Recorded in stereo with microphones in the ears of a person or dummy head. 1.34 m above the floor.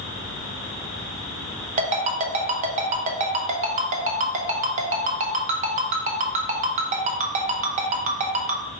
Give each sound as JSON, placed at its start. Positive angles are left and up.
{"t": 1.8, "sound": "a ringtone", "side_deg": -40, "distance_m": 0.8}